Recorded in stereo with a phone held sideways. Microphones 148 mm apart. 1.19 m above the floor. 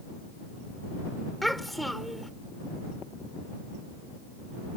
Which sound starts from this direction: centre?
A child speaking, at 1.4 s.